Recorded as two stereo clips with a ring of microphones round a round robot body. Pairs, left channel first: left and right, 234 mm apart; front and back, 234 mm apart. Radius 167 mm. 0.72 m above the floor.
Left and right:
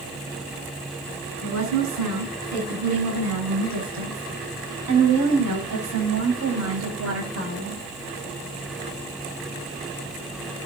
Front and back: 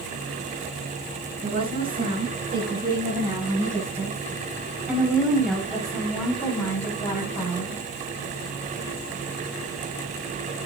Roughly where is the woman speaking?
Behind right.